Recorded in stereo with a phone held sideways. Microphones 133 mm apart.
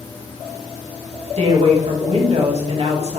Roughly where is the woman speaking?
Right.